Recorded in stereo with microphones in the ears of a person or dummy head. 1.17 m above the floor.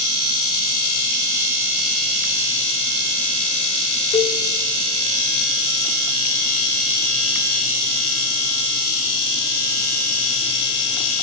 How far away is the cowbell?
About 0.6 m.